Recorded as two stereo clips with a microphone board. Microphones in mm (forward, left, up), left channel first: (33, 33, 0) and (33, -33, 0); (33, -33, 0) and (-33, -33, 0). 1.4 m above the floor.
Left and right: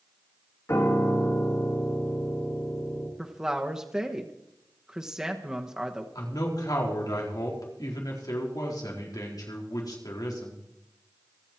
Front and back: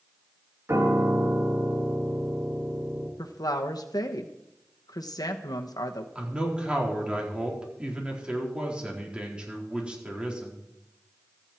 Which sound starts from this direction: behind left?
A piano, at 0.7 s.